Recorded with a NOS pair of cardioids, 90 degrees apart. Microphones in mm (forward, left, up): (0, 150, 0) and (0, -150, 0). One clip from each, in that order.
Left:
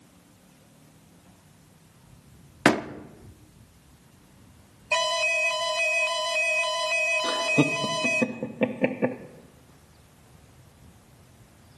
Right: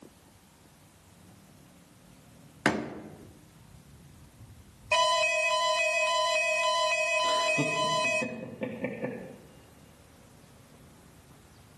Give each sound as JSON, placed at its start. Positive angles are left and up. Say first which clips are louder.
{"t": 2.6, "sound": "a door slam", "louder": "left 7 dB", "azimuth_deg": 45, "distance_m": 1.0}
{"t": 4.9, "sound": "an alarm", "louder": "left 1 dB", "azimuth_deg": 10, "distance_m": 0.7}
{"t": 7.2, "sound": "laughter", "louder": "left 3 dB", "azimuth_deg": 60, "distance_m": 1.0}